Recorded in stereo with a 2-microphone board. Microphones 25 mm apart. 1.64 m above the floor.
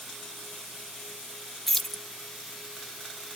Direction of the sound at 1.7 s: 15° left (ahead or behind).